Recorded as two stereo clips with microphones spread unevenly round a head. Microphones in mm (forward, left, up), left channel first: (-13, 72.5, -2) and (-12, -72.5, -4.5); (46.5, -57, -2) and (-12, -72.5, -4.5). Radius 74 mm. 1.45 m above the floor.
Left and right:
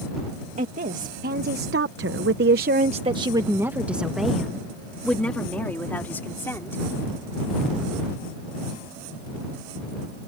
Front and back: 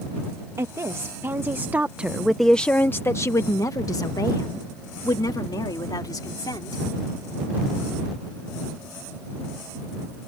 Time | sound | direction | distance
0.6 | a woman speaking | 130° right | ?